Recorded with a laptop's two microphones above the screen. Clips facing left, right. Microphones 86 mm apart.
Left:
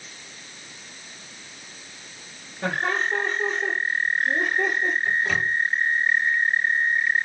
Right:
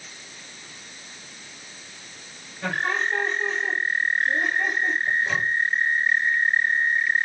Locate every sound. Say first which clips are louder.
2.6 s laughter: left 1 dB; 40° left (ahead or behind), 4 m; by 5.0 s 70° left (ahead or behind), 3.5 m
5.1 s a microwave: even; 55° left (ahead or behind), 3 m